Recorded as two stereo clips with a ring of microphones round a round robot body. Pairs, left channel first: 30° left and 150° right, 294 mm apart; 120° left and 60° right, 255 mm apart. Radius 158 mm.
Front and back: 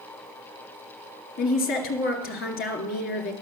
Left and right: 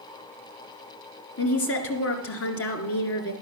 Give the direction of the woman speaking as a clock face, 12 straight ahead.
9 o'clock.